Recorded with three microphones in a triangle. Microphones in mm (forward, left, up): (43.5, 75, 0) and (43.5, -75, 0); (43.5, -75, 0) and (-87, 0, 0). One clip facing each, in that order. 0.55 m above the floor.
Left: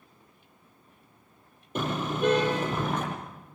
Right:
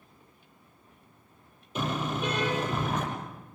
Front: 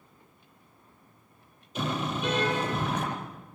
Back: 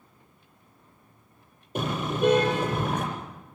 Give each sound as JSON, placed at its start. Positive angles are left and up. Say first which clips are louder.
{"t": 1.8, "sound": "a car horn", "louder": "left 2 dB, back 4 dB", "azimuth_deg": 125, "distance_m": 9.0}